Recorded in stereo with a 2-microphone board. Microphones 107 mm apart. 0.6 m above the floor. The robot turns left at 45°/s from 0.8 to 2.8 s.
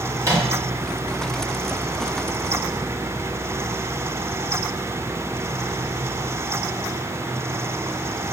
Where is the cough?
I don't hear a cough.